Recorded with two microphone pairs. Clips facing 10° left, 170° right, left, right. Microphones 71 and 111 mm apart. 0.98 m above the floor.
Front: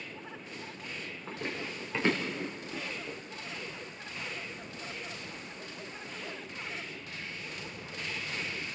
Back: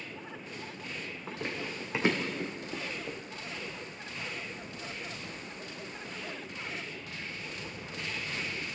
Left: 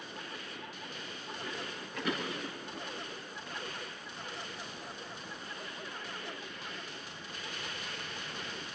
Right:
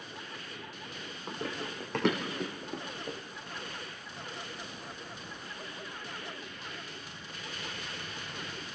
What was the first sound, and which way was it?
Running footsteps, 90° right.